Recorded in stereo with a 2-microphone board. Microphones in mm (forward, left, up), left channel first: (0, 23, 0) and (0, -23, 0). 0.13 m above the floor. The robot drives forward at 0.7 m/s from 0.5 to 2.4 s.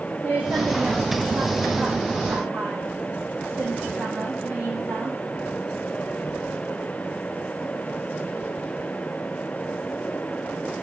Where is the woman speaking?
30° right (ahead or behind), 6 m; by 5.2 s 40° right (ahead or behind), 5 m.